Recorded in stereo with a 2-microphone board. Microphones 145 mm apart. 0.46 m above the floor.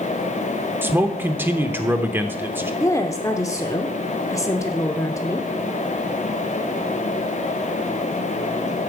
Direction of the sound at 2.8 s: 20° left (ahead or behind).